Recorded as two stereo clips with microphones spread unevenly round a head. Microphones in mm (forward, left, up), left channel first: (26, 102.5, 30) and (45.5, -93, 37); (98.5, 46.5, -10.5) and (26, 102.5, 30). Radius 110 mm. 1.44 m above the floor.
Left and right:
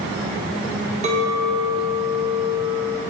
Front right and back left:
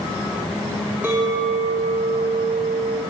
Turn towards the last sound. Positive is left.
turn(degrees=-145)